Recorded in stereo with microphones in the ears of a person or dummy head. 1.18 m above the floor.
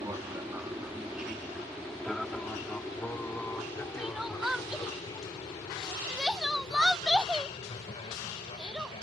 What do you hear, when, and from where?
0.0 s an aircraft: 15° right (ahead or behind); by 9.0 s 30° left (ahead or behind)
4.0 s crying: centre (ahead or behind)